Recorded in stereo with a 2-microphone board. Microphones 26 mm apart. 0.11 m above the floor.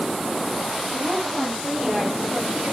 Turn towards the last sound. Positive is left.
turn(degrees=-20)  # may be behind; listen again after turning